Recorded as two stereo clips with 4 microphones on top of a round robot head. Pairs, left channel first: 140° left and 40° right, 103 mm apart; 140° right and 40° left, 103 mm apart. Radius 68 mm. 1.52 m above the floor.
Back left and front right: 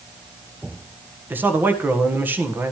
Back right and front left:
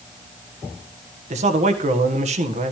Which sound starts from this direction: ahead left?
A man speaking, at 1.3 s.